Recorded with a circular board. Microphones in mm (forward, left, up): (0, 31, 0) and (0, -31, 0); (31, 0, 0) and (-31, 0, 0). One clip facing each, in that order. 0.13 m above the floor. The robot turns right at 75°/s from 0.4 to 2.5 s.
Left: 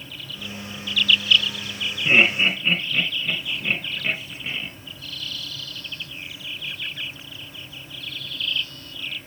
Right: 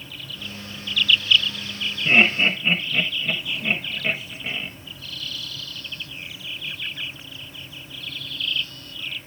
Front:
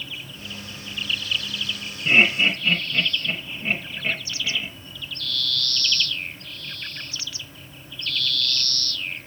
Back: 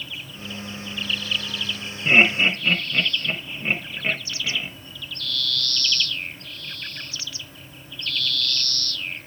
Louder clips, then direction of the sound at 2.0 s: Even, back 1 dB; 160° left.